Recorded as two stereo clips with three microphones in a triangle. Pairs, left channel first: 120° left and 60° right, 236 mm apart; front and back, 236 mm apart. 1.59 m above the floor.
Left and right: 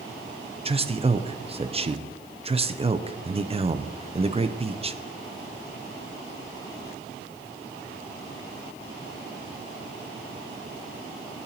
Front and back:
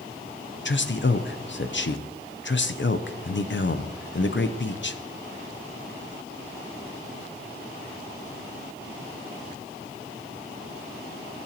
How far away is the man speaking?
About 0.6 m.